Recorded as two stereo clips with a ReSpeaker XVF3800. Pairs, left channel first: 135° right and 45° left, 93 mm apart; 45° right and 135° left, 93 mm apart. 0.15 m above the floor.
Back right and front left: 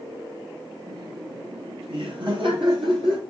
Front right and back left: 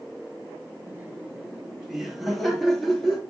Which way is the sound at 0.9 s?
75° left.